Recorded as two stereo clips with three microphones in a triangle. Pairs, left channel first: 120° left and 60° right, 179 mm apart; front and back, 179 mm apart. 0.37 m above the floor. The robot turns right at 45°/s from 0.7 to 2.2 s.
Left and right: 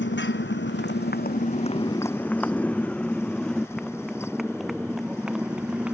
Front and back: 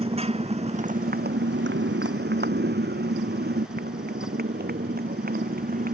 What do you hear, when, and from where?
0.0 s a motorcycle: 125° left; by 6.0 s 145° right